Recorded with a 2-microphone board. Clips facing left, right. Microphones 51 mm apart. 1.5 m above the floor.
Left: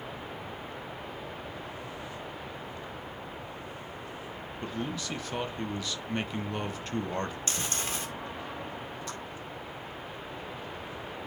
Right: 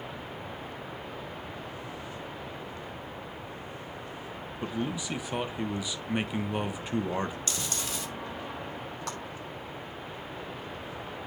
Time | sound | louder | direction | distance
4.6 | a man speaking | right 3 dB | 15° right (ahead or behind) | 1.0 m
7.5 | chewing | left 1 dB | 35° left (ahead or behind) | 1.8 m
9.1 | a clap | right 5 dB | 75° right (ahead or behind) | 5 m